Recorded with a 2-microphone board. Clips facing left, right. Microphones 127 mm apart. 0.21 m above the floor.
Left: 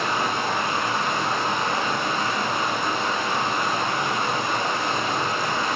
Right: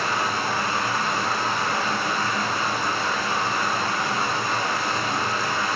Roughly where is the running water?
Centre.